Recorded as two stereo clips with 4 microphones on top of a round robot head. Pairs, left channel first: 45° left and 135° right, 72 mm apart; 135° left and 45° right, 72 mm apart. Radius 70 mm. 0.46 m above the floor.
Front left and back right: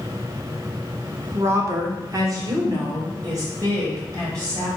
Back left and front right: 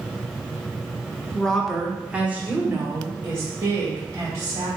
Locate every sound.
1.3 s a woman speaking: 160° right, 0.9 m; by 4.7 s 95° right, 3 m